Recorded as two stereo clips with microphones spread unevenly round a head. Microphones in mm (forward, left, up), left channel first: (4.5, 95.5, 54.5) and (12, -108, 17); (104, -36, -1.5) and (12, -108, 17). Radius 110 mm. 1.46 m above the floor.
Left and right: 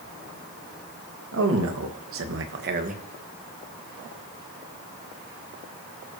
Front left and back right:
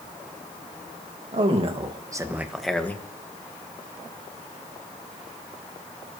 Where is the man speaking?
110° right, 2.5 m; by 3.0 s 30° right, 1.9 m.